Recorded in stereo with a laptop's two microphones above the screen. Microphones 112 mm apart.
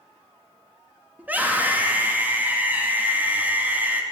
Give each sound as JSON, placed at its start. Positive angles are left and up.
{"t": 1.2, "sound": "a scream", "side_deg": -15, "distance_m": 1.4}